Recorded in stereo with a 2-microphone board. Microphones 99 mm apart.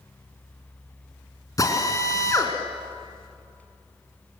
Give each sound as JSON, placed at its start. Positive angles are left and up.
{"t": 1.6, "sound": "a drill", "side_deg": 35, "distance_m": 3.0}